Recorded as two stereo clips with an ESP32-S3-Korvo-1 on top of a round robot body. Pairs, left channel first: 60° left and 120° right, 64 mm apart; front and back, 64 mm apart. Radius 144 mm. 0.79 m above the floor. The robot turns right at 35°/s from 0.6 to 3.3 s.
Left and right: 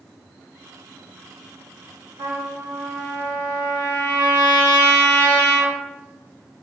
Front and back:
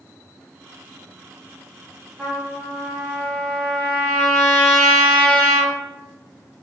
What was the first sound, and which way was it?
A trumpet, 110° right.